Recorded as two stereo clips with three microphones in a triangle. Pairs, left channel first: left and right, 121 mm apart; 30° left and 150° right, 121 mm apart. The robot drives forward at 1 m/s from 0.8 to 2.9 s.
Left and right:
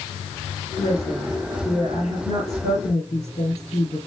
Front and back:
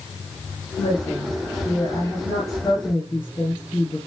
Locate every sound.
0.8 s a woman speaking: 55° left, 3.5 m; by 4.1 s 95° left, 3 m